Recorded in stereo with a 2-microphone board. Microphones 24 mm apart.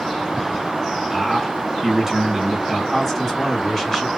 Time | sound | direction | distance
1.1 | a man speaking | 15° right (ahead or behind) | 1.4 m
2.9 | a man speaking | 15° left (ahead or behind) | 1.7 m